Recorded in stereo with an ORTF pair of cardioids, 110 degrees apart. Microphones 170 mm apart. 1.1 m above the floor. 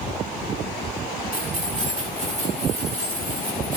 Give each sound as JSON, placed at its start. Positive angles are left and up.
{"t": 1.3, "sound": "keys jangling", "azimuth_deg": -40, "distance_m": 9.5}